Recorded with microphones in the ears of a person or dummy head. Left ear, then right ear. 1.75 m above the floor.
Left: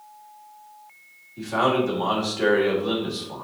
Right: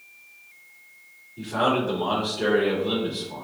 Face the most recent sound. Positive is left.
turn(degrees=70)  # may be behind; listen again after turning